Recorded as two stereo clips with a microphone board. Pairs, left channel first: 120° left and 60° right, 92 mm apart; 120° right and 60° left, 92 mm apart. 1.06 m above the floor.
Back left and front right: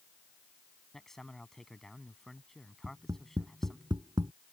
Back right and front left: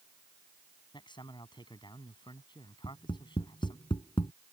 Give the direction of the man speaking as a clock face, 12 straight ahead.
5 o'clock.